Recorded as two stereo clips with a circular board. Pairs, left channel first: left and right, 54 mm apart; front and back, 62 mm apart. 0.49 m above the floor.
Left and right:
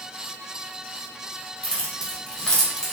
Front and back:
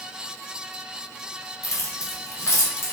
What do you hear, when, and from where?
1.6 s keys jangling: 10° left, 0.8 m